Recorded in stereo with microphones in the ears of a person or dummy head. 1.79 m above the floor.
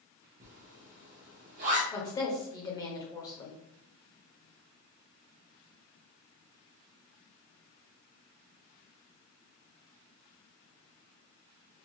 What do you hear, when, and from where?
0.4 s a zipper: 50° right (ahead or behind), 1.0 m
1.9 s a woman speaking: 25° left (ahead or behind), 1.3 m